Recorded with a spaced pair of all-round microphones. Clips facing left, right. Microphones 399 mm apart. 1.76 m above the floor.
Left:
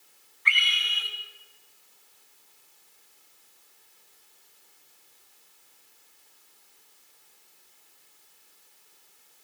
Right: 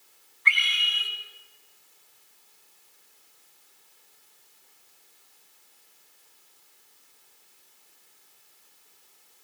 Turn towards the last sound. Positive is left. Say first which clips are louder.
# right 1 dB
turn(degrees=-55)  # may be behind; listen again after turning